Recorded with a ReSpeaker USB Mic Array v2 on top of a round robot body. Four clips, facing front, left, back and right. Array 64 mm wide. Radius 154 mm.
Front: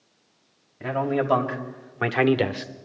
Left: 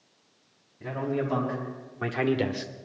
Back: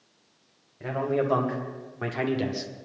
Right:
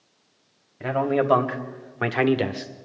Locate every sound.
0.8 s a man speaking: 75° right, 2.5 m; by 2.7 s 10° left, 1.1 m